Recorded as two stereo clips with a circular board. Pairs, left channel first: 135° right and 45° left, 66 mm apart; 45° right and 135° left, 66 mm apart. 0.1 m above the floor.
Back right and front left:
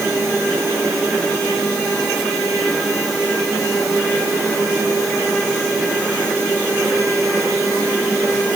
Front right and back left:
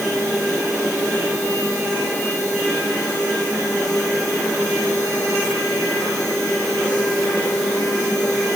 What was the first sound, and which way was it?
Only background noise.